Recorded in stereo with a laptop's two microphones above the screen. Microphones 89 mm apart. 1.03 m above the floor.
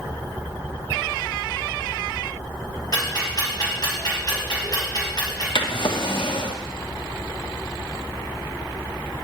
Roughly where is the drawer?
Left.